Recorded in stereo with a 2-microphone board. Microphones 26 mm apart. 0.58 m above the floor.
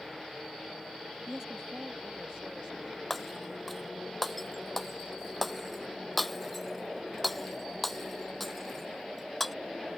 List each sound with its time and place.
1.3 s a woman speaking: 30° right (ahead or behind); by 3.0 s 35° right (ahead or behind)
3.1 s breaking glass: 5° left (ahead or behind)